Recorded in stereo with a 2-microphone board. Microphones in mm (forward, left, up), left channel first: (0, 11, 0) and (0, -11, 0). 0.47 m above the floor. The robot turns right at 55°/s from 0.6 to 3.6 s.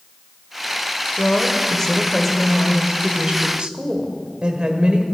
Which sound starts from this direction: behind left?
A woman speaking, at 1.2 s.